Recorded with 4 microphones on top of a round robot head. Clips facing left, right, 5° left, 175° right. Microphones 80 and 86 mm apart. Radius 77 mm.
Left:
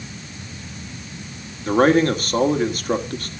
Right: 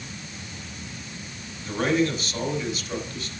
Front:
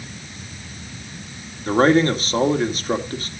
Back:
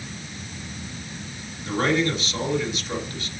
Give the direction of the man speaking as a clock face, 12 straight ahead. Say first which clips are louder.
Left 8 dB, front 7 dB; 10 o'clock.